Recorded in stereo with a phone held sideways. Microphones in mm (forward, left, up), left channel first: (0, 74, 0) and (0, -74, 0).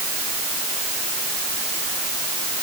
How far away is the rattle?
No rattle in this recording.